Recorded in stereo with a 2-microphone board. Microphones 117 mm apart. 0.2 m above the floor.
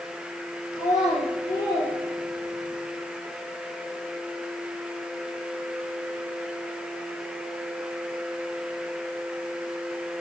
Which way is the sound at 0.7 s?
35° left (ahead or behind).